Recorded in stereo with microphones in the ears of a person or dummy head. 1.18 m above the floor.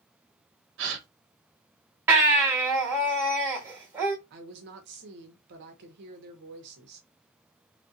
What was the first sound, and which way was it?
A gasp, 65° right (ahead or behind).